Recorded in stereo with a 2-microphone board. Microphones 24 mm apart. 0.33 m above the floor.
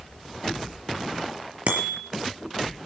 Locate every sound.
1.7 s a bicycle bell: 65° right (ahead or behind), 5 m